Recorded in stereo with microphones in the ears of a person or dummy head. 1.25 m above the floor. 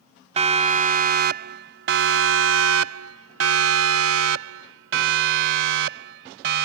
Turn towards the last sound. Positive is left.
turn(degrees=-65)  # may be behind; listen again after turning